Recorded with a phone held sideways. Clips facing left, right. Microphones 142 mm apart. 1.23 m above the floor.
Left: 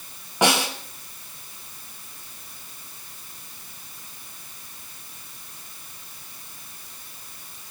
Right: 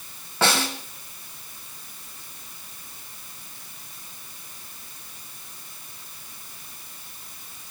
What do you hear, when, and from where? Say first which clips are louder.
0.4 s a snare drum: left 3 dB; 15° left (ahead or behind), 4 m